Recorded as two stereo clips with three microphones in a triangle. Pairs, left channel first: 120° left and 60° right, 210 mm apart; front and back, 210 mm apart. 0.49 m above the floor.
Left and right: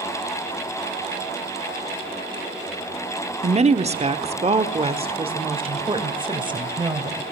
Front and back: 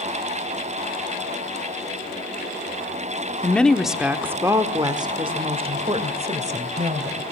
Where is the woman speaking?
75° right, 1.0 m; by 7.2 s 125° right, 2.5 m.